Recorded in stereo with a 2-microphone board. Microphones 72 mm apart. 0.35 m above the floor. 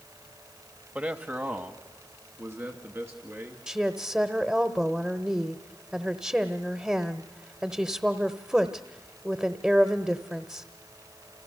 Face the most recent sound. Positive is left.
turn(degrees=-10)  # may be behind; listen again after turning